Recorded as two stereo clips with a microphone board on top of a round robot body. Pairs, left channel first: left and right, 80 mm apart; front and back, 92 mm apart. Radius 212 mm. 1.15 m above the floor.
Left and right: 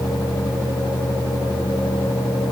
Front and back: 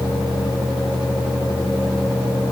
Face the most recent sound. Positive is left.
No sound to turn to.